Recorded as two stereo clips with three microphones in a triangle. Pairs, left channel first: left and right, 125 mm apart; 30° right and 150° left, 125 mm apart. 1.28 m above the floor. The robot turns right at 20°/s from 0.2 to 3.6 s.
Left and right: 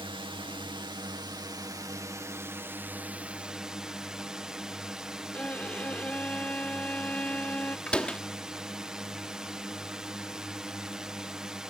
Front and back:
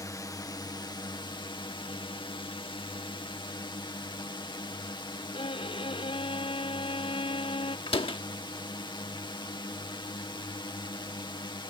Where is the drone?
75° right; by 11.7 s 10° right.